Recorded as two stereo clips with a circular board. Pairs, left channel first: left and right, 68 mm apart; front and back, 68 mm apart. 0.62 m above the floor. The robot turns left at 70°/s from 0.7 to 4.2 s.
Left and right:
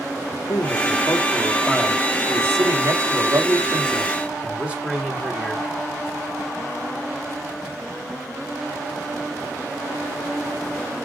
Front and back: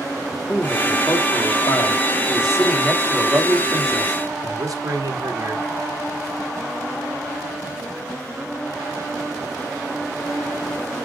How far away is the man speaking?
About 2.5 m.